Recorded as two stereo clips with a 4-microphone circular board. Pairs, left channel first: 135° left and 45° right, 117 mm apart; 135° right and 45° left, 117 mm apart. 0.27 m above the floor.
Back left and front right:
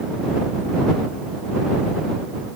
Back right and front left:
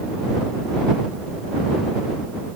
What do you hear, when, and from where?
Only background noise.